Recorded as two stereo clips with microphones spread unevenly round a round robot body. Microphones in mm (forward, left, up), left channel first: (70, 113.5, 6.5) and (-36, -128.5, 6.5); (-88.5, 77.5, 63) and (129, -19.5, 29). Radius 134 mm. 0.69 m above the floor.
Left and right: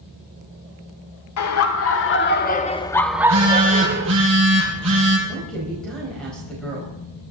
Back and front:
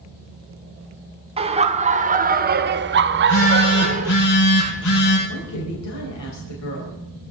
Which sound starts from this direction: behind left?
A woman speaking, at 5.3 s.